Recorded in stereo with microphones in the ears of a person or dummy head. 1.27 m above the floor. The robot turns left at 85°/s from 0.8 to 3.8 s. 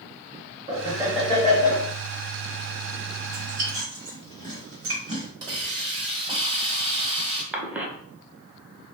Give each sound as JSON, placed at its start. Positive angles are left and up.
{"t": 0.7, "sound": "laughter", "azimuth_deg": -145, "distance_m": 0.8}
{"t": 3.2, "sound": "chewing", "side_deg": -45, "distance_m": 1.5}
{"t": 5.4, "sound": "a hiss", "side_deg": -25, "distance_m": 1.0}
{"t": 7.5, "sound": "a cough", "side_deg": -5, "distance_m": 0.7}